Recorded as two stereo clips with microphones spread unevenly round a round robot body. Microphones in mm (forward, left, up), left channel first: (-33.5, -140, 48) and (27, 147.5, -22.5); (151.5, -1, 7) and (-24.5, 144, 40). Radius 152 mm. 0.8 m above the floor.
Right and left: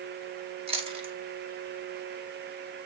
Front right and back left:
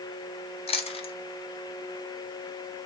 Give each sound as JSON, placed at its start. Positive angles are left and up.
{"t": 0.7, "sound": "chewing", "azimuth_deg": 20, "distance_m": 2.0}